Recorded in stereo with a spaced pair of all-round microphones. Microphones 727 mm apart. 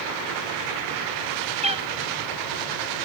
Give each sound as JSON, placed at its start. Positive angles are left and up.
{"t": 1.6, "sound": "a cat meowing", "side_deg": -10, "distance_m": 1.3}